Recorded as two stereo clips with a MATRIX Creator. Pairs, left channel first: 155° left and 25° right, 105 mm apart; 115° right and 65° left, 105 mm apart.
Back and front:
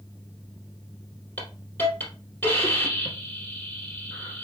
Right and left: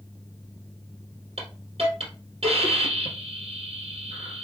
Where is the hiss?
85° left, 3.5 m.